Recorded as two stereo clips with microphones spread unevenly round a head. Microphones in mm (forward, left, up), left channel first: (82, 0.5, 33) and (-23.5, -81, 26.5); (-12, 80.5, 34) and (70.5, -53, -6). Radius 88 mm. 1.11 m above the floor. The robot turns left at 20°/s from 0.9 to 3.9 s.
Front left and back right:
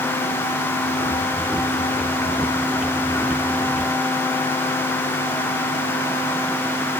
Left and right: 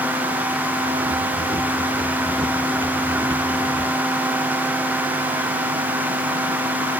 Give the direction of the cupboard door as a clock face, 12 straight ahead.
No cupboard door in this recording.